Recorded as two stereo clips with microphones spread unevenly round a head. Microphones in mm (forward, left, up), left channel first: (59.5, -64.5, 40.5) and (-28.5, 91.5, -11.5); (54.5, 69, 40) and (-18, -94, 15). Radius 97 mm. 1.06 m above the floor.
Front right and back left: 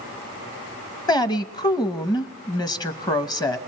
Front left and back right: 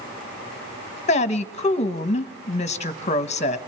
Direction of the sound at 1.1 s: 10° left.